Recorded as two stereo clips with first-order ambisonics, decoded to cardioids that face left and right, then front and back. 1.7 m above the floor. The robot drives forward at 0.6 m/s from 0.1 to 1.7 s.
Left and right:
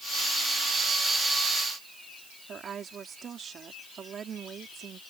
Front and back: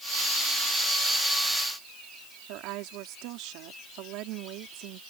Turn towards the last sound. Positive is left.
turn(degrees=-155)